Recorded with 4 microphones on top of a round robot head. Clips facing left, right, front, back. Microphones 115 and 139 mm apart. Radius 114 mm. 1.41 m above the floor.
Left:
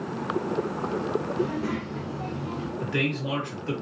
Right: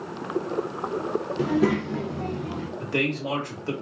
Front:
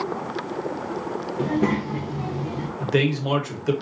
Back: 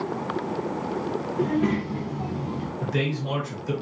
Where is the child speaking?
70° right, 0.5 m; by 2.7 s 35° right, 1.1 m.